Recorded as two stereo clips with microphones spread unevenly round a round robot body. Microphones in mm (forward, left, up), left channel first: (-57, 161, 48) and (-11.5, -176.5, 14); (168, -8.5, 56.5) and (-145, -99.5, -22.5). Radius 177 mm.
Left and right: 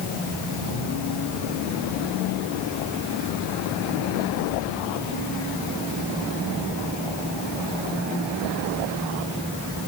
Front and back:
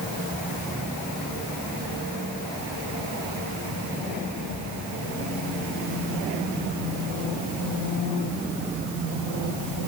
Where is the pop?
No pop in this recording.